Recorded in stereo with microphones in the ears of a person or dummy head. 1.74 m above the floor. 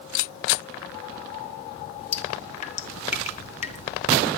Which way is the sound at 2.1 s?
40° left (ahead or behind).